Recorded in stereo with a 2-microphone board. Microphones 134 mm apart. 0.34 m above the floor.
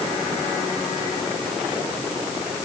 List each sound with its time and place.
Only background noise.